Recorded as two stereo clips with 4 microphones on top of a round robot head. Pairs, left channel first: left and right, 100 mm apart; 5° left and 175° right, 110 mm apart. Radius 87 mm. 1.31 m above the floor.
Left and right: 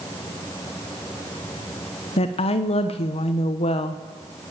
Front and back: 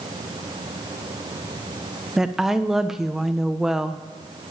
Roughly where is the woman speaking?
Left.